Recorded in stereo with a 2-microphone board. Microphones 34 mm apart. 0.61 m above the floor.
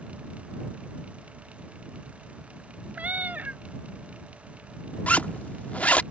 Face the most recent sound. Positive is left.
turn(degrees=50)  # may be behind; listen again after turning